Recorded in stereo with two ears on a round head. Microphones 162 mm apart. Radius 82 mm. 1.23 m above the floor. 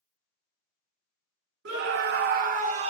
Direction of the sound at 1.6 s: 70° right (ahead or behind).